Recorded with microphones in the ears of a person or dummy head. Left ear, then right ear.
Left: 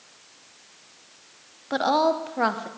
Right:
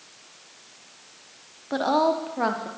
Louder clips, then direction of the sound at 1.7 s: Left 1 dB; 20° left (ahead or behind).